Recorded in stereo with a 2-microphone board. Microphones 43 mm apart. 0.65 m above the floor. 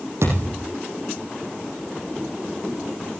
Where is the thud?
70° right (ahead or behind), 8 m.